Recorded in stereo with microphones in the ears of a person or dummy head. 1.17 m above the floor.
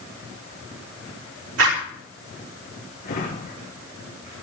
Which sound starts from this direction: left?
A drawer, at 3.0 s.